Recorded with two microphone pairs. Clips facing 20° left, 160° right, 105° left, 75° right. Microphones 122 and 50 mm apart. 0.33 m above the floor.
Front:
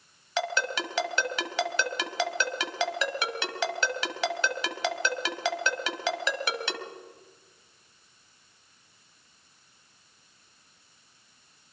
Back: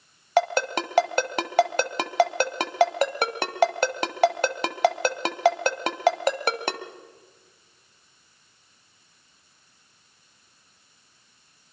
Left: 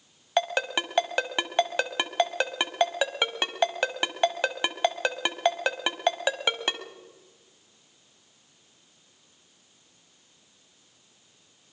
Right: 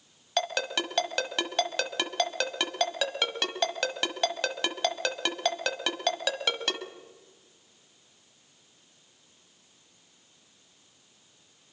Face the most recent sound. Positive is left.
turn(degrees=175)